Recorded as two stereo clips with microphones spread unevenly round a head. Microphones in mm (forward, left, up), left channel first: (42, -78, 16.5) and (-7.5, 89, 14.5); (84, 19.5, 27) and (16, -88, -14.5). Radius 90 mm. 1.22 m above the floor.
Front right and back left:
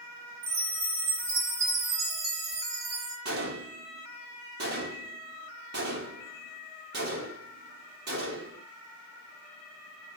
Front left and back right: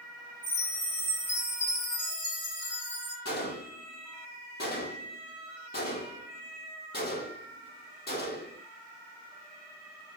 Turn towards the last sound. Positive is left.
turn(degrees=80)